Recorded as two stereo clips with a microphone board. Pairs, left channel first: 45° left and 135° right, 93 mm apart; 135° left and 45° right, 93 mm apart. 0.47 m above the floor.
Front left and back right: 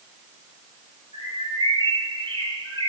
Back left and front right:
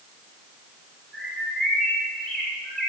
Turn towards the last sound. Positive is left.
turn(degrees=-135)